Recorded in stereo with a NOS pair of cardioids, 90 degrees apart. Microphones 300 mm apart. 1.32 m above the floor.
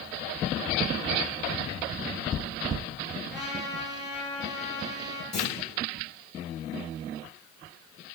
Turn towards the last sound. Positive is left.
turn(degrees=35)